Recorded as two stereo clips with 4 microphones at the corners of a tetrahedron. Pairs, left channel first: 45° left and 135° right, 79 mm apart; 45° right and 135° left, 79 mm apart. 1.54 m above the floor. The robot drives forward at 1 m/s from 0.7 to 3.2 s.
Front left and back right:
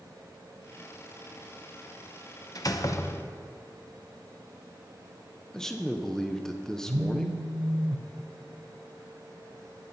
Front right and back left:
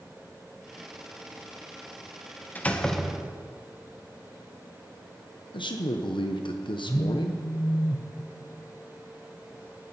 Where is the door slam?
20° left, 0.9 m; by 3.5 s 80° left, 0.6 m.